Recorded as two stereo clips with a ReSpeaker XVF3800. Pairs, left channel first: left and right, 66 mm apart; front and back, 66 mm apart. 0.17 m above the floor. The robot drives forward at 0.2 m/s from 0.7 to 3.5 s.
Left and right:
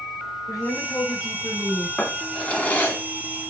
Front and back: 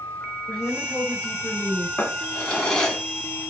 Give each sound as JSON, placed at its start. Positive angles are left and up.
{"t": 0.5, "sound": "a woman speaking", "azimuth_deg": 60, "distance_m": 2.0}
{"t": 2.0, "sound": "a drawer", "azimuth_deg": 50, "distance_m": 0.9}